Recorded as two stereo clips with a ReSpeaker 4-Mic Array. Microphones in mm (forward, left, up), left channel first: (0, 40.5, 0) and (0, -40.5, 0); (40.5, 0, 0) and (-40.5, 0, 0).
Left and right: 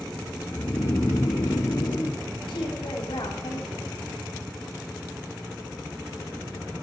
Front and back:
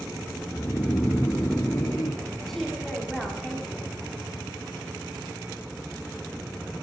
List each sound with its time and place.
0.5 s snoring: 55° left, 1.0 m
2.5 s a woman speaking: 85° left, 3 m